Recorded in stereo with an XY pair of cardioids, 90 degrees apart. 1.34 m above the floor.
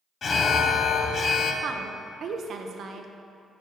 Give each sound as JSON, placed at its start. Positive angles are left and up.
{"t": 0.2, "sound": "an alarm", "azimuth_deg": 50, "distance_m": 0.7}
{"t": 1.6, "sound": "a woman speaking", "azimuth_deg": -65, "distance_m": 0.7}